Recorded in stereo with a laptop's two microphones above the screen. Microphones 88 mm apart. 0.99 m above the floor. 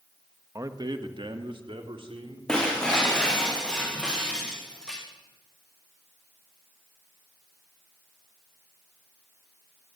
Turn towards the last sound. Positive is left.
turn(degrees=5)  # may be behind; listen again after turning